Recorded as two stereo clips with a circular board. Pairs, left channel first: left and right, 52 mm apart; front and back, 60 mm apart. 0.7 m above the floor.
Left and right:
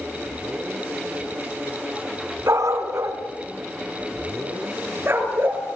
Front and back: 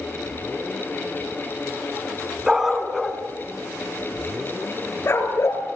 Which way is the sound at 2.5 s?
100° right.